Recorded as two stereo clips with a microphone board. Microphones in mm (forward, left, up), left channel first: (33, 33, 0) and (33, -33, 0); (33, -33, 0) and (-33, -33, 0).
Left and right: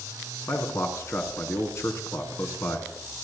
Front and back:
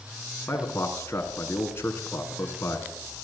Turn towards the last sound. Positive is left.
turn(degrees=50)